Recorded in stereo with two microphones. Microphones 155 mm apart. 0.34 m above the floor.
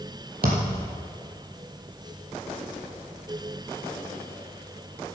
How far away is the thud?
About 2.5 m.